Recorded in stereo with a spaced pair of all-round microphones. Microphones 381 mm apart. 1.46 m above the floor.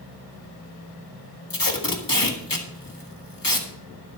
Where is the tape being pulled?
55° left (ahead or behind), 1.6 m.